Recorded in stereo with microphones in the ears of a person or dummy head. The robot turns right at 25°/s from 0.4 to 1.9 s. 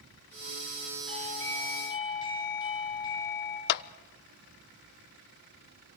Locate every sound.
1.1 s a doorbell: 5° left (ahead or behind), 4.5 m; by 3.6 s 25° left (ahead or behind), 4.5 m
3.7 s a clap: 50° left (ahead or behind), 0.5 m